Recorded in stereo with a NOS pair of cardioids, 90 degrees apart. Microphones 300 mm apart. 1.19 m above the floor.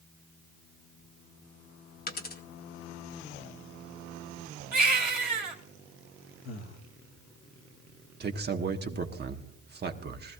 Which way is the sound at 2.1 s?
30° left.